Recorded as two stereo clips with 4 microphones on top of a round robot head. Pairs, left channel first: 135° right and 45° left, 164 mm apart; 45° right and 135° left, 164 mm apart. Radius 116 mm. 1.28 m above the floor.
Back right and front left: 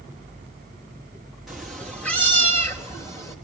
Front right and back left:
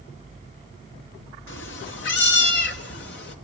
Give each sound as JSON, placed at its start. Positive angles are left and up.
{"t": 1.5, "sound": "a cat meowing", "azimuth_deg": -45, "distance_m": 1.8}